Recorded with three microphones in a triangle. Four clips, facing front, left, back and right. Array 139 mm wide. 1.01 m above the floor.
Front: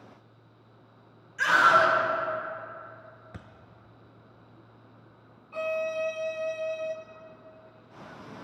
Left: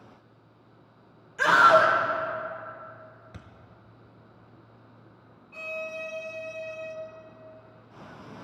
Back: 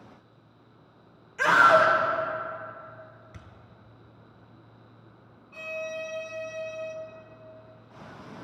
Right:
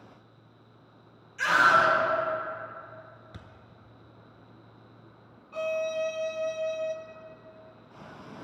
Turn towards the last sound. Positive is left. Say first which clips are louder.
# right 7 dB, front 6 dB
turn(degrees=-40)